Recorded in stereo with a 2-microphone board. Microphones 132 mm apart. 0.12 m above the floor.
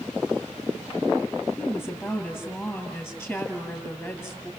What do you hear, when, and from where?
1.6 s a woman speaking: centre (ahead or behind), 2.5 m